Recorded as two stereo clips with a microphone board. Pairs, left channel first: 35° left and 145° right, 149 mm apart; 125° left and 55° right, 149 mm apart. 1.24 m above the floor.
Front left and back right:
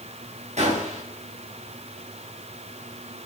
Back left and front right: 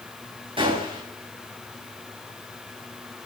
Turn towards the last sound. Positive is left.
turn(degrees=-110)